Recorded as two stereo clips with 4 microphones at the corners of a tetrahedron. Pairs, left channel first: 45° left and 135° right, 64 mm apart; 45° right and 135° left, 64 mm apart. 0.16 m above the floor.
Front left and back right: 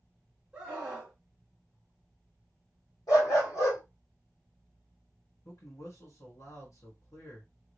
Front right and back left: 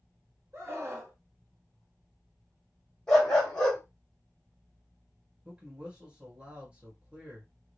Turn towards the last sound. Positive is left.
turn(degrees=65)